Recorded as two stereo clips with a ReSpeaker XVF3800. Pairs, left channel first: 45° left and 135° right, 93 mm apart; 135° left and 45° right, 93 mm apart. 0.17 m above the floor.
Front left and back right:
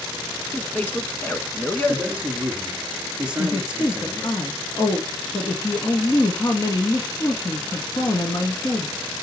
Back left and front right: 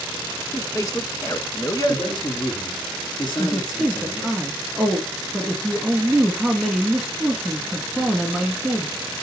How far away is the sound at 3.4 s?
About 1.4 m.